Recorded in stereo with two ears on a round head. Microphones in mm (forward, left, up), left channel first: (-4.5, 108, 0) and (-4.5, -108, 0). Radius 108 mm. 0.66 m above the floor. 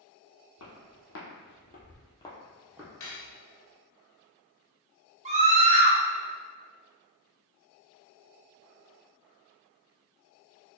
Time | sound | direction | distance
0.6 | footsteps | 65° left (ahead or behind) | 1.4 m
3.0 | cutlery clinking | 55° left (ahead or behind) | 0.8 m
5.2 | a scream | 30° right (ahead or behind) | 0.6 m